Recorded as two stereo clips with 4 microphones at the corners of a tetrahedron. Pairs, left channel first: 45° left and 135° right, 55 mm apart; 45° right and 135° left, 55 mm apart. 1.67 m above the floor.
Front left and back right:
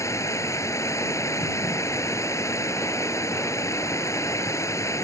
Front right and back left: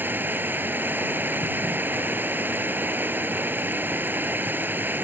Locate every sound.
0.0 s running water: 80° left